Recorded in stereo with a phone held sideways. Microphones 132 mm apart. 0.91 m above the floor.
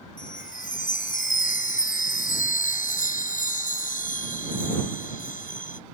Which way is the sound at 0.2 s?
85° left.